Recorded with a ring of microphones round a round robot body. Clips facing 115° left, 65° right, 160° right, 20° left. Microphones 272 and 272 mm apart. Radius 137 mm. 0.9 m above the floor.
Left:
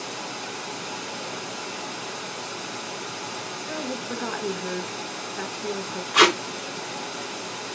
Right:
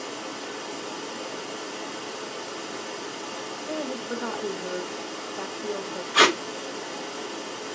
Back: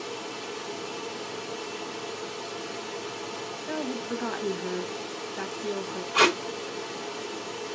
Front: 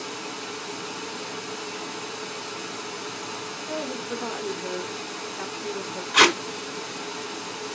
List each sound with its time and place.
0.0 s running water: 75° left, 1.2 m
3.7 s a woman speaking: 155° left, 1.1 m
6.1 s tape being pulled: 45° left, 0.7 m